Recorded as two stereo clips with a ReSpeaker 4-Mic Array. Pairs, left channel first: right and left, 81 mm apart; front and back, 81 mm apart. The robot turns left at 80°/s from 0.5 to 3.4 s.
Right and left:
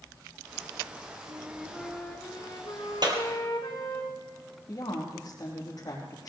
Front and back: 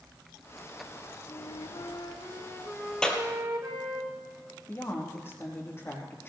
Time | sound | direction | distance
1.3 | a flute | 40° left | 3.5 m
3.0 | a clap | 80° left | 2 m
4.7 | a woman speaking | 60° right | 4 m